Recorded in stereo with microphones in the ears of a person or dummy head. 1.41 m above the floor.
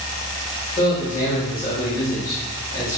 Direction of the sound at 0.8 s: 40° left (ahead or behind).